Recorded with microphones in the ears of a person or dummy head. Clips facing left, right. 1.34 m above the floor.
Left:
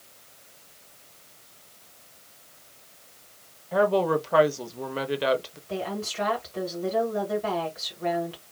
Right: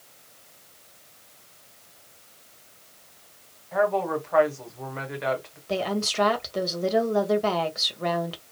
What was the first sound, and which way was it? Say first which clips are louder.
A woman speaking: left 2 dB; 45° left (ahead or behind).